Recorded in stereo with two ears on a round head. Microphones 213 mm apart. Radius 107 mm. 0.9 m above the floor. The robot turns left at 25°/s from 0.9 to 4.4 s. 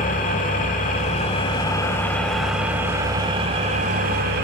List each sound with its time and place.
0.0 s an engine running: 40° left, 1.3 m; by 4.5 s 50° right, 1.3 m